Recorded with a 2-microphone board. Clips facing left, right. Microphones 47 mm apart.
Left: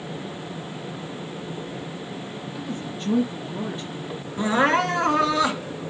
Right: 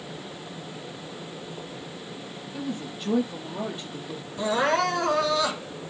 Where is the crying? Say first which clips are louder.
Left 3 dB; 30° left (ahead or behind), 2.5 m.